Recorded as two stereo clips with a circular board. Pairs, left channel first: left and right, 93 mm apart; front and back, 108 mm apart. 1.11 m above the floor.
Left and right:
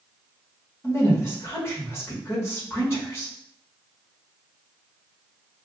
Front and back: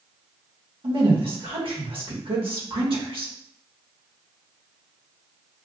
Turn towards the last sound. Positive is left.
turn(degrees=150)